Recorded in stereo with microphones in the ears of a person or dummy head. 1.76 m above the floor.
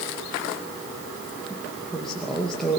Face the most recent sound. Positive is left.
turn(degrees=0)  # may be behind; listen again after turning